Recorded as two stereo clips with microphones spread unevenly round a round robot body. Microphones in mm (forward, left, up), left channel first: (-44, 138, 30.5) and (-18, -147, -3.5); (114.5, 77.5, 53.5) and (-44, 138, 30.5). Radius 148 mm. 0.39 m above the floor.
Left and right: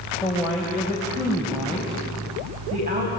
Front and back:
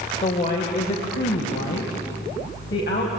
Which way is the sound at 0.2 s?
5° left.